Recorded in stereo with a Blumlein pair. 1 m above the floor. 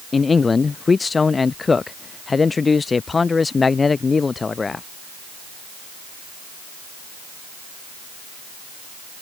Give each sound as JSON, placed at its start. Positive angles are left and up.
{"t": 0.1, "sound": "a man speaking", "azimuth_deg": 15}